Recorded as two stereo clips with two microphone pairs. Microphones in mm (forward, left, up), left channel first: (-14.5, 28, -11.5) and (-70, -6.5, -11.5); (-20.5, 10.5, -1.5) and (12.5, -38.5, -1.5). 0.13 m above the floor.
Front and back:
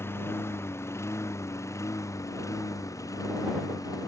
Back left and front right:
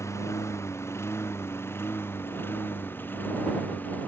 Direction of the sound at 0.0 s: 85° left.